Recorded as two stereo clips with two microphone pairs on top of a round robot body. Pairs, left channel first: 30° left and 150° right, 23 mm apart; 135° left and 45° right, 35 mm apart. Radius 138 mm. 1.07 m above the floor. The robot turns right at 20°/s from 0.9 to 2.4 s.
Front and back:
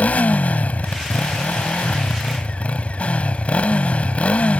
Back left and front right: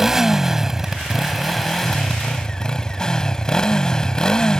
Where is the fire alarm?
No fire alarm in this recording.